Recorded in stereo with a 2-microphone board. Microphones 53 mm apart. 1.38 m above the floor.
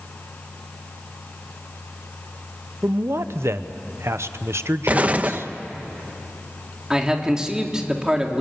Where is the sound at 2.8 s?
65° right (ahead or behind), 0.9 m.